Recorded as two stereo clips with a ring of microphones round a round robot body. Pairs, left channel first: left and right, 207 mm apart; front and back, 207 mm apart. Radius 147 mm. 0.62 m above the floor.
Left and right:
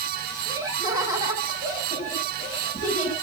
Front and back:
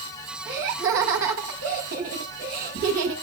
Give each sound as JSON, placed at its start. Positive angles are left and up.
{"t": 0.5, "sound": "laughter", "azimuth_deg": -170, "distance_m": 5.5}